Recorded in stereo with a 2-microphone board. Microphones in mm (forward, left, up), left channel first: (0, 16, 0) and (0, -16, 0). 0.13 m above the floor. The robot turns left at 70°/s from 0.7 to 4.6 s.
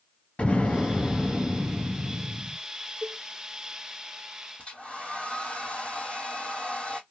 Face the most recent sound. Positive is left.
turn(degrees=35)  # may be behind; listen again after turning